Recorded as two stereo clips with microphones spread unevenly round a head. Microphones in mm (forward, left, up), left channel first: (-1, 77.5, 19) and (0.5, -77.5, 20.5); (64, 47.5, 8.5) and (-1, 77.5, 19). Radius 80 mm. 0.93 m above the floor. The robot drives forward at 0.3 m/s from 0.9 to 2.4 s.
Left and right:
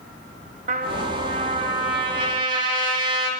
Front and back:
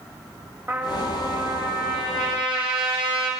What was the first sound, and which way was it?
A trumpet, 135° right.